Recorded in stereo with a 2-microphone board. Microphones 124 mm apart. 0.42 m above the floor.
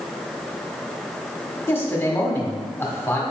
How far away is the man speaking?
About 1.2 m.